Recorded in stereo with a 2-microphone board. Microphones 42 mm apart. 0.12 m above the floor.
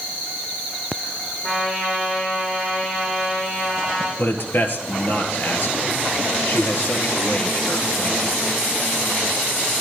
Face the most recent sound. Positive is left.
turn(degrees=55)  # may be behind; listen again after turning